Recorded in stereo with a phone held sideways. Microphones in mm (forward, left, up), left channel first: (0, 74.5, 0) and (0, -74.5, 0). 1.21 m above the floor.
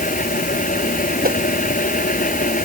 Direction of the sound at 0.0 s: 65° left (ahead or behind).